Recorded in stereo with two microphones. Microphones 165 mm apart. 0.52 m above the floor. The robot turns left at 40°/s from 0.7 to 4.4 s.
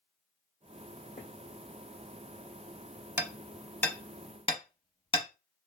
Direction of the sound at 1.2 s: 55° left (ahead or behind).